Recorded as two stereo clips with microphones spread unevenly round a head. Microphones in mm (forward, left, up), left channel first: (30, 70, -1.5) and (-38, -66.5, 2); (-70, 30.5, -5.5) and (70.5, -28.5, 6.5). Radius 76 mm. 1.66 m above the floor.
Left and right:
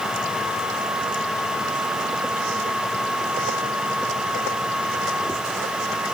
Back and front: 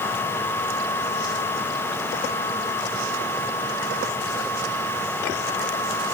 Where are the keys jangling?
I don't hear keys jangling.